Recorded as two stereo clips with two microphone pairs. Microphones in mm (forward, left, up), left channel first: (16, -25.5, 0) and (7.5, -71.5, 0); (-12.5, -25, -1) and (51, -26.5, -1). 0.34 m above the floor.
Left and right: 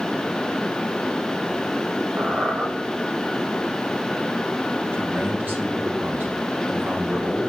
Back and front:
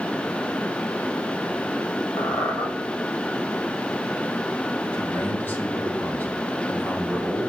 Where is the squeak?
145° right, 4 m.